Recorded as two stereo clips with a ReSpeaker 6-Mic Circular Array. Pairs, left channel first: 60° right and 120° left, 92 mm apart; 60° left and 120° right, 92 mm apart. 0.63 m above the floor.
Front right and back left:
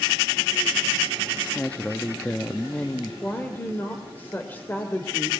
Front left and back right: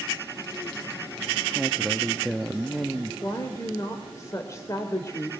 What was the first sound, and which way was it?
A man speaking, 25° right.